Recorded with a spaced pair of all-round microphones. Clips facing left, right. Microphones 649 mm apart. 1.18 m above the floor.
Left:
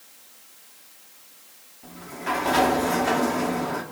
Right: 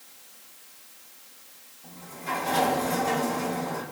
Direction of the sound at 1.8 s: 80° left.